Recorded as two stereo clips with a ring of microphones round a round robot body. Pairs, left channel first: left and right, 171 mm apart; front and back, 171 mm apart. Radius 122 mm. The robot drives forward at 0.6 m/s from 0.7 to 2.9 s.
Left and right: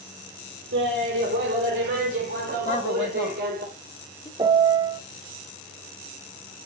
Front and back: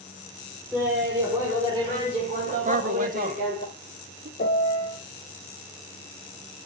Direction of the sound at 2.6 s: 145° left.